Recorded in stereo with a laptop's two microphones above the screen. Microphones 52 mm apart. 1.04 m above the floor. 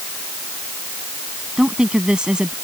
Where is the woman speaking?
15° right (ahead or behind).